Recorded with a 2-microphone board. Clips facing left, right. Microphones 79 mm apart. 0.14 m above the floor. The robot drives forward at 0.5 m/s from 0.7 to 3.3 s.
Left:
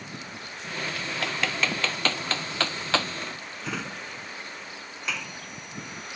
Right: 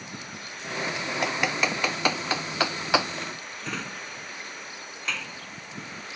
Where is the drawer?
5° left (ahead or behind).